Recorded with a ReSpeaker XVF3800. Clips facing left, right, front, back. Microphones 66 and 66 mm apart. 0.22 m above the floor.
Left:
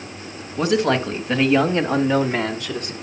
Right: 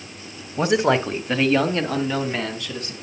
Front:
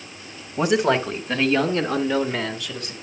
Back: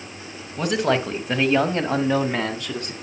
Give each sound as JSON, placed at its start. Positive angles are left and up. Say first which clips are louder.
{"t": 0.6, "sound": "a man speaking", "louder": "even, front 2 dB", "azimuth_deg": -65, "distance_m": 1.1}